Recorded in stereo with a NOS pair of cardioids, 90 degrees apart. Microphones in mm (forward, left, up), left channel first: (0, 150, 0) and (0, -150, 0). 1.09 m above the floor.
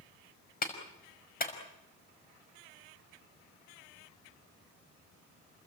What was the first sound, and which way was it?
A clap, 30° left.